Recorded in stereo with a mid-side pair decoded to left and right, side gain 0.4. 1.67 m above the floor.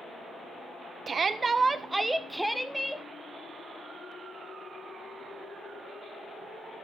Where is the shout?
50° right, 1.3 m; by 3.0 s 5° left, 1.9 m.